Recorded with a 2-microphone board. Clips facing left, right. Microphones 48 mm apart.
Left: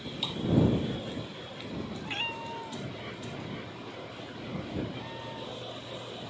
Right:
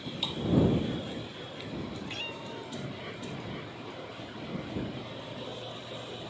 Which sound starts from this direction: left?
A cat meowing, at 2.0 s.